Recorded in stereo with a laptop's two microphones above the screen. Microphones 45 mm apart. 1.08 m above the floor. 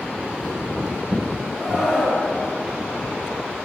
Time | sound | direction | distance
1.6 | a scream | 10° right (ahead or behind) | 8 m